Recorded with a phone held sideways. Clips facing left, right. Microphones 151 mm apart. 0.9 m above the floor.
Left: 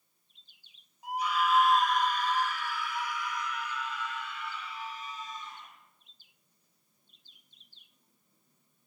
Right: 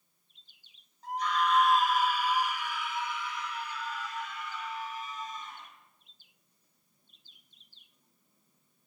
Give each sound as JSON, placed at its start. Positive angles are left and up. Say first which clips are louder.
{"t": 1.0, "sound": "a scream", "louder": "even", "side_deg": 10, "distance_m": 4.0}